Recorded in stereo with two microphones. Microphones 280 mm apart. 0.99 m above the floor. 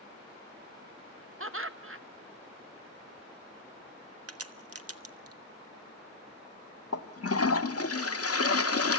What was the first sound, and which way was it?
Laughter, 50° right (ahead or behind).